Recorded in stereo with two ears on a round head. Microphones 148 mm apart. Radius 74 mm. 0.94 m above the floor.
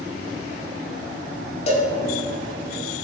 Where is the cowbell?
45° left (ahead or behind), 4 m.